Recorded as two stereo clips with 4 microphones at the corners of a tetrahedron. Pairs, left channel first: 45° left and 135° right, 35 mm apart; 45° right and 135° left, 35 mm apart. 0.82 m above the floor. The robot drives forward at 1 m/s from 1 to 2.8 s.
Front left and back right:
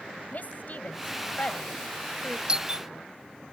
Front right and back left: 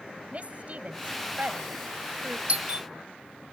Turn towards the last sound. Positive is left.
turn(degrees=170)